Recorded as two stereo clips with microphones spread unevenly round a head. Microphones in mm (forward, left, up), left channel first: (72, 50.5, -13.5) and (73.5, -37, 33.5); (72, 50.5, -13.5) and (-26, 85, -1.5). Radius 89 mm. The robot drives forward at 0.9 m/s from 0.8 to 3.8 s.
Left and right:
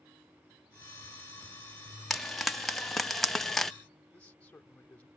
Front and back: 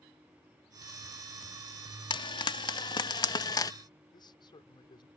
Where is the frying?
10° left; by 3.7 s 20° left.